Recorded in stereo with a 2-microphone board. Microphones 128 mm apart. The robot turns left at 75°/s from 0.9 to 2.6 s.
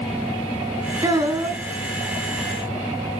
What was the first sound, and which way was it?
A child speaking, 65° right.